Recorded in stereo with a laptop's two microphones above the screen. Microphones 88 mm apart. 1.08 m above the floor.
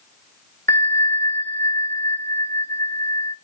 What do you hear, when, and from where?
0.7 s a bell: 25° left (ahead or behind), 0.6 m